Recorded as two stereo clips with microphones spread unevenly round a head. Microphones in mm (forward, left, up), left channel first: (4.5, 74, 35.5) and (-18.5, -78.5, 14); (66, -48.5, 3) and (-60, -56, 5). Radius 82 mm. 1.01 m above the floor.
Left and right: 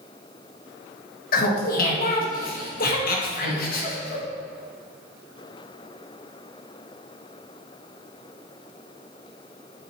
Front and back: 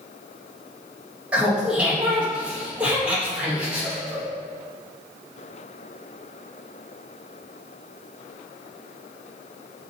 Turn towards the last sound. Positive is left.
turn(degrees=100)